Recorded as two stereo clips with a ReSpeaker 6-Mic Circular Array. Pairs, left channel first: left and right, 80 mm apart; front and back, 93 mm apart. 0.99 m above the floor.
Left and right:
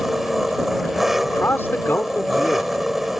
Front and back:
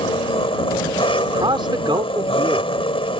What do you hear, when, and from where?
0.0 s an engine running: straight ahead
1.2 s a man speaking: 150° left